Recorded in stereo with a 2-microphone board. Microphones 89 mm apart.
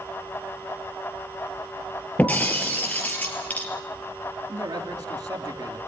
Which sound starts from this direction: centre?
Breaking glass, at 2.2 s.